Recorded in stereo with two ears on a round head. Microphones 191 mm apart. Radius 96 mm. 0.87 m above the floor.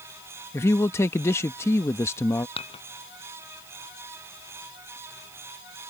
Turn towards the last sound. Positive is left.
turn(degrees=30)  # may be behind; listen again after turning